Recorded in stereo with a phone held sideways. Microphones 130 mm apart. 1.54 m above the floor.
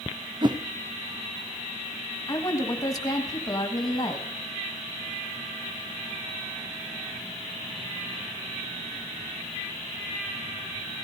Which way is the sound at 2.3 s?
30° left (ahead or behind).